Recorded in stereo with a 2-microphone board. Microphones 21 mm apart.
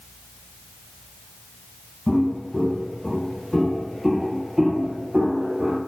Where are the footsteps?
35° left (ahead or behind), 1.5 m; by 5.8 s 30° right (ahead or behind), 1.1 m.